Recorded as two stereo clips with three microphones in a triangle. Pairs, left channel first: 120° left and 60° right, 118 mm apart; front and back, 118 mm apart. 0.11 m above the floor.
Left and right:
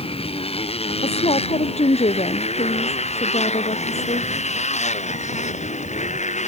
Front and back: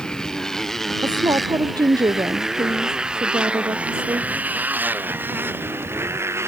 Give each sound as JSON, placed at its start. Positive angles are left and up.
{"t": 0.0, "sound": "a motorcycle", "azimuth_deg": 85}
{"t": 1.0, "sound": "a woman speaking", "azimuth_deg": 130}